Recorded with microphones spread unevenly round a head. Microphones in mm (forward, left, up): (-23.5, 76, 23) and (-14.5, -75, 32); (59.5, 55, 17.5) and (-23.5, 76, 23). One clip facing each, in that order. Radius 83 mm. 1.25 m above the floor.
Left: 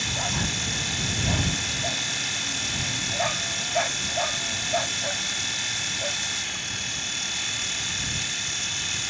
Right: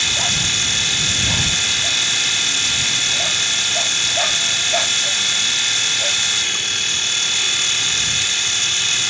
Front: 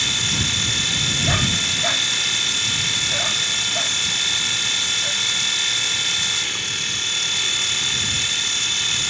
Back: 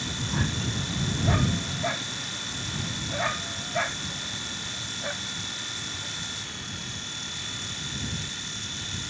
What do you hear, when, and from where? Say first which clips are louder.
0.0 s a machine running: right 2 dB, front 3 dB; 60° right